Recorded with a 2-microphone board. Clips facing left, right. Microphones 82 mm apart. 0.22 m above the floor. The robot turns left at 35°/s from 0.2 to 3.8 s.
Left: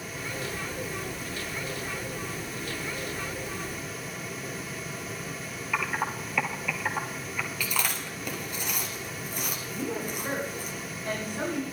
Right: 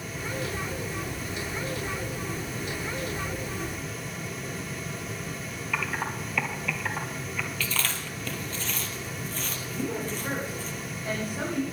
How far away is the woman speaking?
About 7 m.